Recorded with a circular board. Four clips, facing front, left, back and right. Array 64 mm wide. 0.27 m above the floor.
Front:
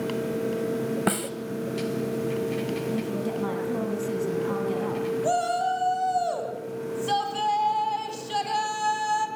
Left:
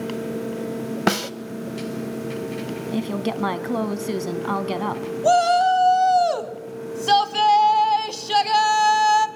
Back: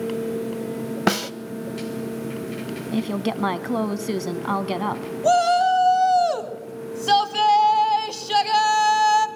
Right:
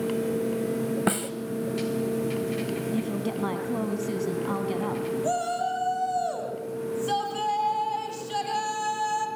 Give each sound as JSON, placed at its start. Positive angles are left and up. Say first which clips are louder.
{"t": 1.1, "sound": "a snare drum", "louder": "left 10 dB, back 9 dB", "azimuth_deg": 130, "distance_m": 0.8}
{"t": 2.9, "sound": "a woman speaking", "louder": "left 3 dB, back 3 dB", "azimuth_deg": 140, "distance_m": 2.0}
{"t": 5.2, "sound": "a shout", "louder": "left 14 dB, back 10 dB", "azimuth_deg": 125, "distance_m": 2.0}